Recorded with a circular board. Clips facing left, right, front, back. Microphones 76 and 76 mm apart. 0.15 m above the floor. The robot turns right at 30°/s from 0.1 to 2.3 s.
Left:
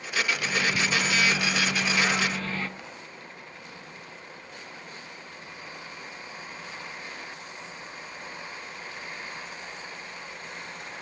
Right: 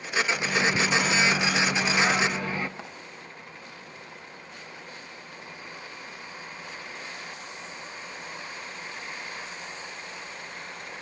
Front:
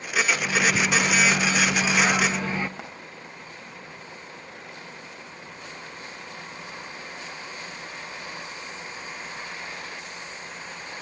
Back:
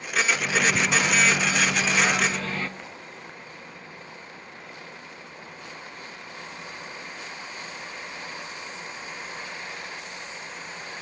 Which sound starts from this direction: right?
A microwave, at 0.4 s.